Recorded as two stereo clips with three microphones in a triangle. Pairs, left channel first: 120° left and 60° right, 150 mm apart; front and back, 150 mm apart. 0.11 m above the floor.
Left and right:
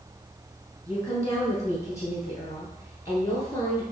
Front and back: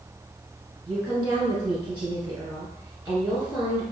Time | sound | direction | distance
0.9 | a woman speaking | 120° left | 1.5 m